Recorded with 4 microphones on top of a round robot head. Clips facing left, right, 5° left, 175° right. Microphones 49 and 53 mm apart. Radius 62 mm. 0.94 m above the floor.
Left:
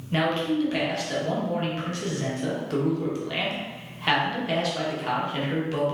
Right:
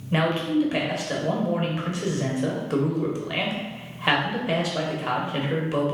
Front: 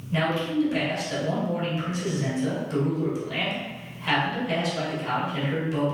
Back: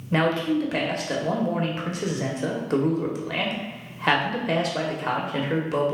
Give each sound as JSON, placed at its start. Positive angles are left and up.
{"t": 0.1, "sound": "a man speaking", "azimuth_deg": -165, "distance_m": 1.0}